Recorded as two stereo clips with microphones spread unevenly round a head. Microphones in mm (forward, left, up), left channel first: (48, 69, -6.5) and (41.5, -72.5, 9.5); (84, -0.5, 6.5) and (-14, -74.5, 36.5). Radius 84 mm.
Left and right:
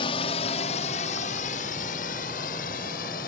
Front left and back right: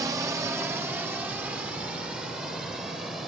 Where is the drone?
145° left; by 3.3 s 130° left.